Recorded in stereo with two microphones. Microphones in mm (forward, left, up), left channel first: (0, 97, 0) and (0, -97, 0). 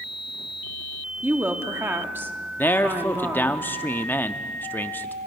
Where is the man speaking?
10° left (ahead or behind), 0.8 m.